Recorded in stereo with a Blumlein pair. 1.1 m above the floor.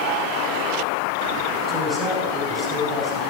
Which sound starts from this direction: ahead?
A man speaking, at 1.7 s.